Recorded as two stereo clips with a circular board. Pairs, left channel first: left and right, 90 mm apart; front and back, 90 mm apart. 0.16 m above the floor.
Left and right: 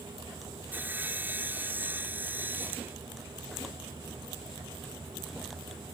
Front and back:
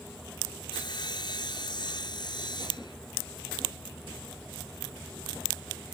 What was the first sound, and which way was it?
Sawing, 25° right.